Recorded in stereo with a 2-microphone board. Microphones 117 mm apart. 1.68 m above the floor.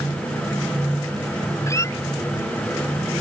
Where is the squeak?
25° left (ahead or behind).